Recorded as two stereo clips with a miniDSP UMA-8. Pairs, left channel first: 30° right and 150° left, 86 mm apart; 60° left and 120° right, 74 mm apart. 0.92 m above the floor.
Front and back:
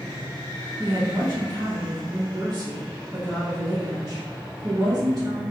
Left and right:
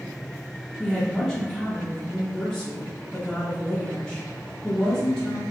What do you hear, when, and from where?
0.8 s a woman speaking: 145° left, 0.8 m